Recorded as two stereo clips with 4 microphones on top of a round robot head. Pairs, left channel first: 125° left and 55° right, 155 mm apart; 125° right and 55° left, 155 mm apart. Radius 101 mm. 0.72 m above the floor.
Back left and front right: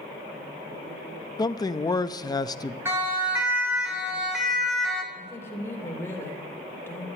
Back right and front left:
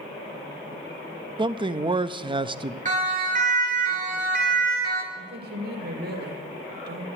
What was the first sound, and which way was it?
A man speaking, 80° left.